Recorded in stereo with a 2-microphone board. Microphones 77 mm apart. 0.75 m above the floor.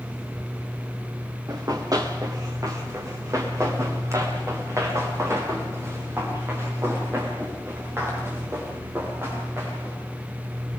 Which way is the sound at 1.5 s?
55° right (ahead or behind).